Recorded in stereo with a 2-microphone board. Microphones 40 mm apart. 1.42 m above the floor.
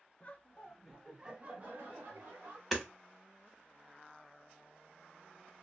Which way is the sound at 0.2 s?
35° left (ahead or behind).